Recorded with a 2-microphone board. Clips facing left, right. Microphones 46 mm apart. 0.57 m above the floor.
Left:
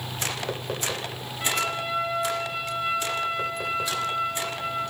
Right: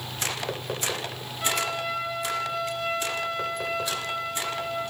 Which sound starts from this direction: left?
A trumpet, at 1.4 s.